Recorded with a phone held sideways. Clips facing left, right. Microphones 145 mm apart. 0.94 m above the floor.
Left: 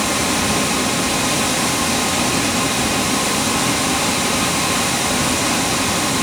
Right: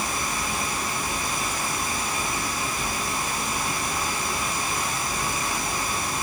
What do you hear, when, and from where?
0.0 s running water: 80° left, 0.9 m